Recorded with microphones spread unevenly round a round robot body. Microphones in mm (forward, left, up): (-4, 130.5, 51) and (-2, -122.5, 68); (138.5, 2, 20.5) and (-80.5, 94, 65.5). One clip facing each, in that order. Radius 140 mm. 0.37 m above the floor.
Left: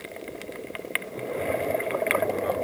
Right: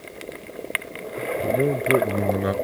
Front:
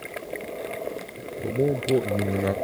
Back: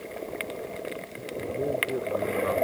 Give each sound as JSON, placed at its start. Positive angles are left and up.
{"t": 1.4, "sound": "a man speaking", "azimuth_deg": -70}